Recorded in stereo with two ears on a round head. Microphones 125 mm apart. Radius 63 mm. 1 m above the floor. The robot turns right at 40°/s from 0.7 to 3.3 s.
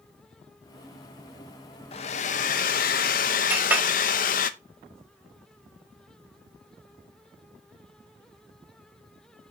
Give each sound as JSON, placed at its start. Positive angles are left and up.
{"t": 1.9, "sound": "a hair dryer", "azimuth_deg": 50, "distance_m": 0.7}
{"t": 3.5, "sound": "a clink", "side_deg": -10, "distance_m": 1.4}